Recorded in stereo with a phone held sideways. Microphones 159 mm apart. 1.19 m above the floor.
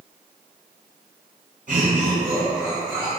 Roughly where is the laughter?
Right.